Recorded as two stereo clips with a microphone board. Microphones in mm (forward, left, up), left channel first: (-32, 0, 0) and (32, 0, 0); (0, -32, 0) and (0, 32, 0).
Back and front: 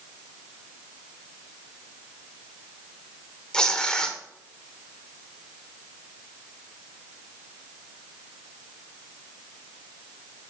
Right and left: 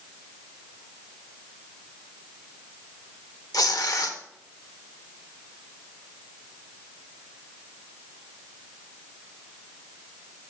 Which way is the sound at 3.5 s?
105° right.